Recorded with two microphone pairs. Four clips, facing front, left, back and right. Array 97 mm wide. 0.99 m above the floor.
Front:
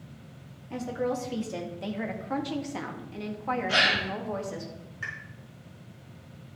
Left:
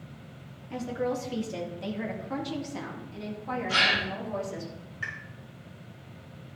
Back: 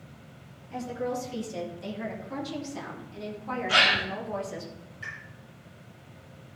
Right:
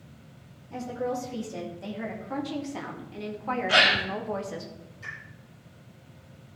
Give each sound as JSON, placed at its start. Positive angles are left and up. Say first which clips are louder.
{"t": 0.7, "sound": "a woman speaking", "louder": "left 1 dB, front 2 dB", "azimuth_deg": 25, "distance_m": 2.5}
{"t": 3.7, "sound": "a gasp", "louder": "right 4 dB, back 4 dB", "azimuth_deg": -85, "distance_m": 3.0}
{"t": 5.0, "sound": "a pop", "louder": "left 4 dB, front 3 dB", "azimuth_deg": 40, "distance_m": 3.5}